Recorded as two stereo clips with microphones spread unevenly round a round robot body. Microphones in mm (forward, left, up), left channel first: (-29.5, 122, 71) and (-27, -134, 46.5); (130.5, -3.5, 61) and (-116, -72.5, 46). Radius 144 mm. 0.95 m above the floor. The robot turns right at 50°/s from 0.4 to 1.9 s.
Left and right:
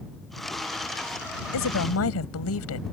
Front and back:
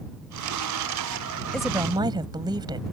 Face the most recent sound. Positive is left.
turn(degrees=120)